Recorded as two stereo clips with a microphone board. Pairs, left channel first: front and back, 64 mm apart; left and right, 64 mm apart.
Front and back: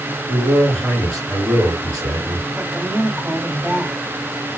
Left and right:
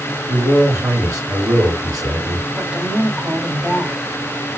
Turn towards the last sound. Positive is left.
turn(degrees=-135)